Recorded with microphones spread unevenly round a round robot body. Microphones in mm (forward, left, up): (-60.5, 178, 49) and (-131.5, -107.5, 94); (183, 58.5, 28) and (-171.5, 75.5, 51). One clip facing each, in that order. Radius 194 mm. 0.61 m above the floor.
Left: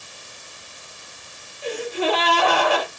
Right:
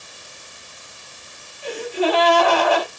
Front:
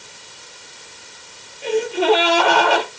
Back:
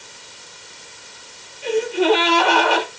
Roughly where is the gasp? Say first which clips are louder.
Right 2 dB, even; ahead left.